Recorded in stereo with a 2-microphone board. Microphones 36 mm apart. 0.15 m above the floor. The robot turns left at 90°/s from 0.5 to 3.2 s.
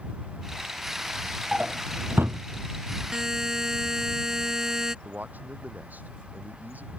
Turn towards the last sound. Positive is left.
turn(degrees=-55)  # may be behind; listen again after turning